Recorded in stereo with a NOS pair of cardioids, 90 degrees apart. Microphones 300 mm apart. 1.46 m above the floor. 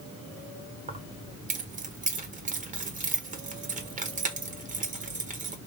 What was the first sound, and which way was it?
Keys jangling, 25° right.